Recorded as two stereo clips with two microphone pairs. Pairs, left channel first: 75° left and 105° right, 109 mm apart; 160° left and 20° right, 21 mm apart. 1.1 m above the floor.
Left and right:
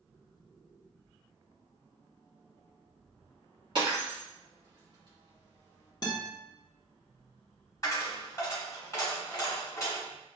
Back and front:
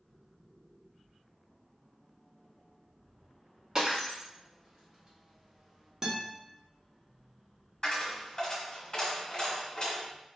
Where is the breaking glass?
70° right, 1.8 m.